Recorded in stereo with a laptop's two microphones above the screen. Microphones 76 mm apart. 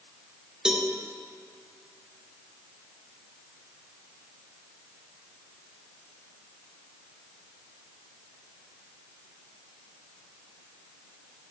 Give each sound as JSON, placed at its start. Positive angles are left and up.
{"t": 0.7, "sound": "a cowbell", "side_deg": -10, "distance_m": 0.5}